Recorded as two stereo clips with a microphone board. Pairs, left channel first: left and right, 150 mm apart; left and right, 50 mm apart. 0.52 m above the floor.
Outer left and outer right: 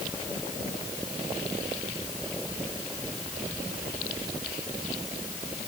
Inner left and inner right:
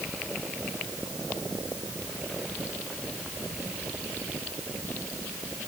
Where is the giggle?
I don't hear a giggle.